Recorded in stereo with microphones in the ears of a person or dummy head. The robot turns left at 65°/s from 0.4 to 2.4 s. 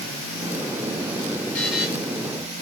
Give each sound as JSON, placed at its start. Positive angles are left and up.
{"t": 1.5, "sound": "a buzzer", "side_deg": 5, "distance_m": 1.7}